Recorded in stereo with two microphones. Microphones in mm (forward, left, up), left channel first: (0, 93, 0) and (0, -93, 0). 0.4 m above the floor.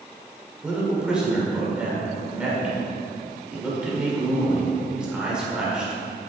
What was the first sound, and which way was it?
A man speaking, 5° right (ahead or behind).